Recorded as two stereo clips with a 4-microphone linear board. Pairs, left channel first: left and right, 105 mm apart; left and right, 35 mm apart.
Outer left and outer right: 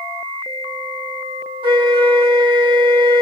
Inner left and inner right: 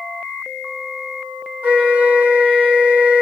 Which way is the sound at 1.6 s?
50° right (ahead or behind).